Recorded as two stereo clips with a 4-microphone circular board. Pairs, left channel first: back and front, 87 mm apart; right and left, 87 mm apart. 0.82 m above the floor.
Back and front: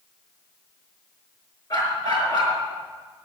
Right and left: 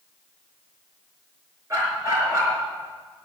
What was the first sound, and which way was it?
A dog barking, 145° left.